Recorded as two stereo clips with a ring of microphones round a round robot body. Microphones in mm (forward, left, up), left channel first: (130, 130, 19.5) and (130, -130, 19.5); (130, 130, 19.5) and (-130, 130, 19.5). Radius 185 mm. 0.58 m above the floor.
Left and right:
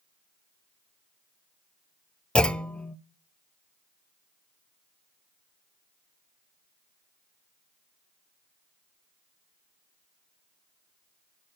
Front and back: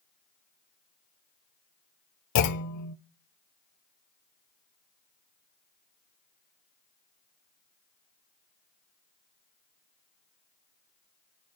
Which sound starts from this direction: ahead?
A clunk, at 2.4 s.